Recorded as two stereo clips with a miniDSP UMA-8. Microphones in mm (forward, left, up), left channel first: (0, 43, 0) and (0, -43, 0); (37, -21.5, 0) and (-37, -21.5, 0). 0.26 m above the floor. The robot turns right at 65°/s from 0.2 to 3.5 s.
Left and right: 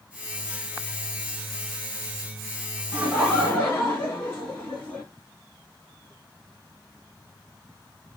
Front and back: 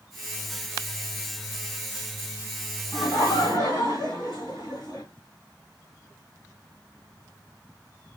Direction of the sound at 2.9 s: 20° right.